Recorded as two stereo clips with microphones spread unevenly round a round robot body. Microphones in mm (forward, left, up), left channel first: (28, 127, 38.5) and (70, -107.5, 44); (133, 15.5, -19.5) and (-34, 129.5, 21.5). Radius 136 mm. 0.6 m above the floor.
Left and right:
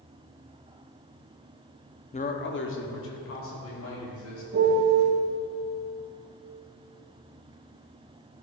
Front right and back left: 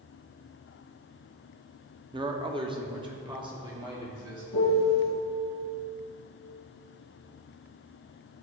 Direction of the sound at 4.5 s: 35° right.